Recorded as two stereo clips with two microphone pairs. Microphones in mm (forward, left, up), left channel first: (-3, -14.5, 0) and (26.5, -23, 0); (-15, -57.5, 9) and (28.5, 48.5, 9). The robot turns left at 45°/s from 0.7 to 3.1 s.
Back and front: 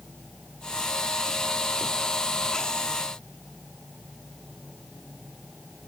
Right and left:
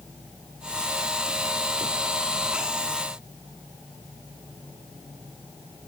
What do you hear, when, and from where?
Only background noise.